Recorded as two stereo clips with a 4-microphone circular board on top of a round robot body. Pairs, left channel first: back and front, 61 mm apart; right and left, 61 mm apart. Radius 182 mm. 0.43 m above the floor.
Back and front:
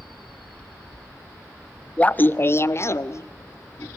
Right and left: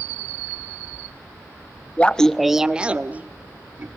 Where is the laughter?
130° right, 0.8 m; by 3.9 s 145° left, 1.5 m.